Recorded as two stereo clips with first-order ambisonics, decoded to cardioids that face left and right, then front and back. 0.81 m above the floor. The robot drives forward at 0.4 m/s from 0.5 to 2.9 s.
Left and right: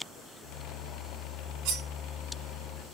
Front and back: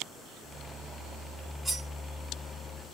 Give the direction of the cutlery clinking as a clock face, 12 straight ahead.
3 o'clock.